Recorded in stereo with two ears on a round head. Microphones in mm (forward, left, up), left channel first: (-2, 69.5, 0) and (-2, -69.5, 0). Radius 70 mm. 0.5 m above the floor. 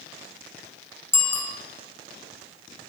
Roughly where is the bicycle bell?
Centre.